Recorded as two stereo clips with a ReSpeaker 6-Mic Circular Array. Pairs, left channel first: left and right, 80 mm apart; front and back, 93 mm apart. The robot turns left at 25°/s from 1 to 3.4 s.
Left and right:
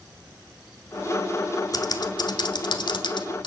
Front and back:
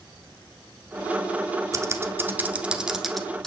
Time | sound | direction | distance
1.7 | typing on a keyboard | 125° left | 1.0 m